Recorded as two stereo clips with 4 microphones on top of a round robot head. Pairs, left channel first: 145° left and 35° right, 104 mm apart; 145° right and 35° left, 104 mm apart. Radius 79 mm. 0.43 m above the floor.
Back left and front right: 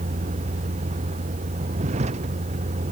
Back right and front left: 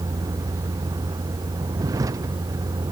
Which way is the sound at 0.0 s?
20° right.